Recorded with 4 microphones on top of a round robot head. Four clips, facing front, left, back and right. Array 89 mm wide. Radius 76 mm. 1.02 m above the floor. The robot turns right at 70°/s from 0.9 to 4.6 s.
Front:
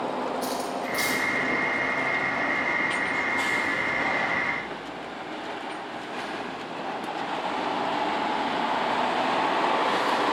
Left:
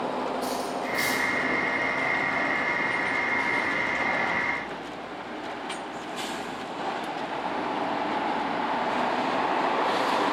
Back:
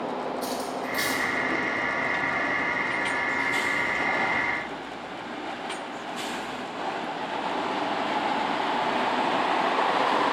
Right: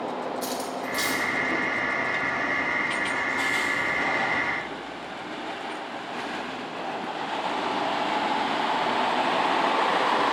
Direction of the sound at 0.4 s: 85° right.